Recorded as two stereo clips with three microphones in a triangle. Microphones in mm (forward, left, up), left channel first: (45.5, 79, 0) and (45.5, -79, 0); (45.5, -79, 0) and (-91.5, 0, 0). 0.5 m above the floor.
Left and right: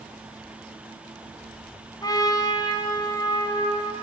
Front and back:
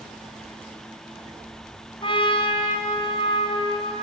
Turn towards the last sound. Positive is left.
turn(degrees=25)